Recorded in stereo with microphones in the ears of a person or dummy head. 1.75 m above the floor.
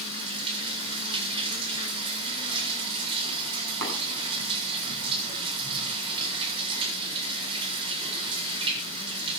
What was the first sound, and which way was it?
Running water, 30° right (ahead or behind).